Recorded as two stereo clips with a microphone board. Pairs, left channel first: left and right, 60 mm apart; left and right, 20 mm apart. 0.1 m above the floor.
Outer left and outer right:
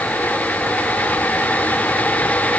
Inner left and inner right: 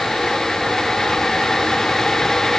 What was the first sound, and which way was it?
Only background noise.